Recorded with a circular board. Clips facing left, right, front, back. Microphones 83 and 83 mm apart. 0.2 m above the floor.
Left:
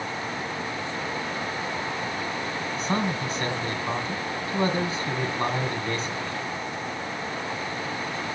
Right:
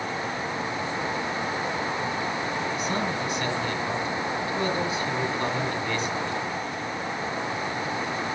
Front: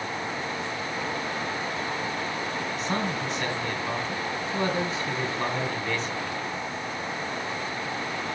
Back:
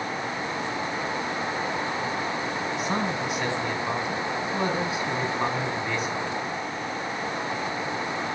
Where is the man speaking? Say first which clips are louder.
Left 1 dB, back 1 dB; 105° left, 1.8 m.